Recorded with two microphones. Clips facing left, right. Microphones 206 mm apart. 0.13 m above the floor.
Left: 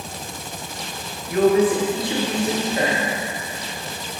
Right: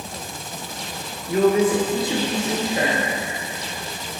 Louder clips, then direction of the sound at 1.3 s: Left 1 dB; 30° right (ahead or behind).